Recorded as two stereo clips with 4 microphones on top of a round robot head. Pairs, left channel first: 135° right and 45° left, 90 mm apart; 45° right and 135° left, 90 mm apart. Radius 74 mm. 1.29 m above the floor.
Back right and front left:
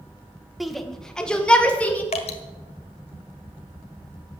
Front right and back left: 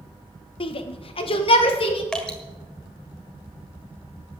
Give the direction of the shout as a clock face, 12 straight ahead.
1 o'clock.